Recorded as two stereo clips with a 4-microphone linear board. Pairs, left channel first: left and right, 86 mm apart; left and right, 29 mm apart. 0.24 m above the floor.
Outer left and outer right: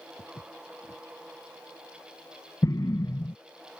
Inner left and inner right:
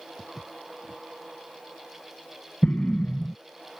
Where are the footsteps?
70° left (ahead or behind).